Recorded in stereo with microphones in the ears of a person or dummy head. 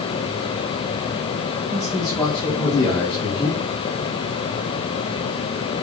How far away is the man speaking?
About 2.5 m.